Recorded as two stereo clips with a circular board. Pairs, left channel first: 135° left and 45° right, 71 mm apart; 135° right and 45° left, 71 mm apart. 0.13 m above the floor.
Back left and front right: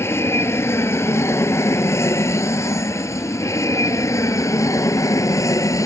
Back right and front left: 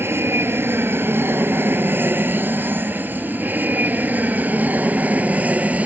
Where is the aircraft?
95° left; by 5.9 s 110° left.